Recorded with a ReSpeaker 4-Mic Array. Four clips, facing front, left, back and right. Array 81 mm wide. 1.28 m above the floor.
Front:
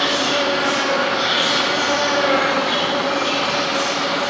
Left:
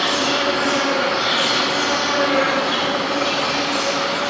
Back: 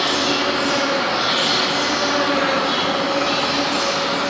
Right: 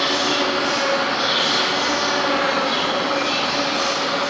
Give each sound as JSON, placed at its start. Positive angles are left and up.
{"t": 0.0, "sound": "an insect", "azimuth_deg": 15, "distance_m": 8.0}